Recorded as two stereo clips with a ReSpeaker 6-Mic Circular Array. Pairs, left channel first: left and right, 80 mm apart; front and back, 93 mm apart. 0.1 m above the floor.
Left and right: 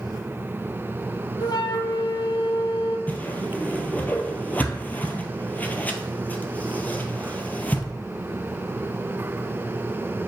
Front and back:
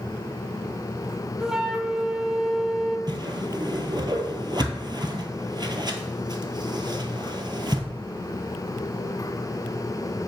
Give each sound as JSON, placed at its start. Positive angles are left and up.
{"t": 1.4, "sound": "a flute", "azimuth_deg": 95, "distance_m": 0.7}
{"t": 3.1, "sound": "a whoosh", "azimuth_deg": 155, "distance_m": 0.8}